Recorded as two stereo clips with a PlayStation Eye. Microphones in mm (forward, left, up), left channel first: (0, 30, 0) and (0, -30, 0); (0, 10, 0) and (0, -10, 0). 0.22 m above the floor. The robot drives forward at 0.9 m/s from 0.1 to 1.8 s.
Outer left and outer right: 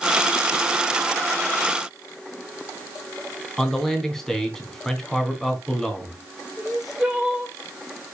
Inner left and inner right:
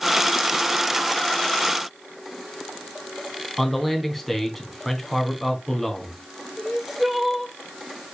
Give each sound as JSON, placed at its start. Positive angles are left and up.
{"t": 3.6, "sound": "a man speaking", "side_deg": 10, "distance_m": 2.5}
{"t": 6.6, "sound": "crying", "side_deg": -5, "distance_m": 4.0}